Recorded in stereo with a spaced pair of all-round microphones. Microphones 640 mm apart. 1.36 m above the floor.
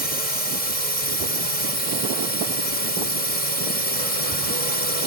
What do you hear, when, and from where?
0.0 s a drone: 65° right (ahead or behind)